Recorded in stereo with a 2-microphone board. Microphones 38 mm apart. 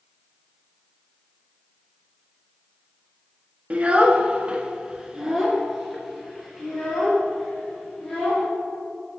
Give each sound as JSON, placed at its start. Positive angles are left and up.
{"t": 3.7, "sound": "a child speaking", "side_deg": -35, "distance_m": 1.0}